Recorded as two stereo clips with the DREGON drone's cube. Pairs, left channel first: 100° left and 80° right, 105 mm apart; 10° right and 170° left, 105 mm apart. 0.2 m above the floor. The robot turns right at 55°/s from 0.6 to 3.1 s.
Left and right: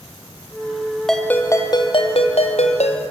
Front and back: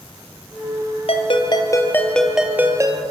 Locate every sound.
1.1 s a ringtone: 15° left, 2.5 m; by 3.0 s 120° left, 2.5 m